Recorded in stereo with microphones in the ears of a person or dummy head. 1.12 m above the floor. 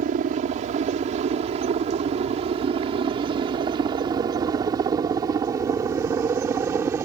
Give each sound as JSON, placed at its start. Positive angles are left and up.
{"t": 0.0, "sound": "a helicopter", "side_deg": -45}